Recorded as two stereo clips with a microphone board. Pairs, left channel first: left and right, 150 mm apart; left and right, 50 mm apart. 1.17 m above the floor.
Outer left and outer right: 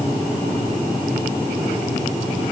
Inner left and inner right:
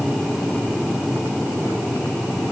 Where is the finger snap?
I don't hear a finger snap.